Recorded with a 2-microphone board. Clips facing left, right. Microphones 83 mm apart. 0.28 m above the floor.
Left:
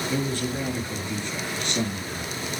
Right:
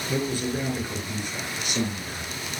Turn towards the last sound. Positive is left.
turn(degrees=-10)  # may be behind; listen again after turning